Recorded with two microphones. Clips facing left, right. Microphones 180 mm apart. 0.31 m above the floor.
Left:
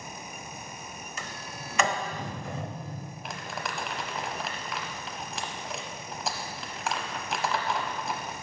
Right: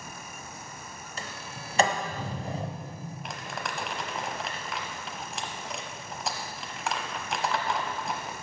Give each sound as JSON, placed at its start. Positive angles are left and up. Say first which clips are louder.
{"t": 1.2, "sound": "a sliding door", "louder": "right 2 dB", "side_deg": -35, "distance_m": 0.9}
{"t": 3.2, "sound": "crumpling", "louder": "left 1 dB", "side_deg": 0, "distance_m": 0.8}